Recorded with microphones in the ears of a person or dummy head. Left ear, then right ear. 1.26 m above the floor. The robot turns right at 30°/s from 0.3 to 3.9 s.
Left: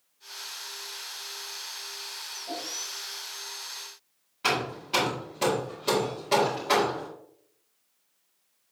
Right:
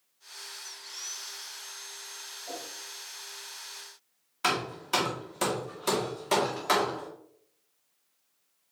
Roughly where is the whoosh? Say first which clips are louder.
Left 4 dB; right.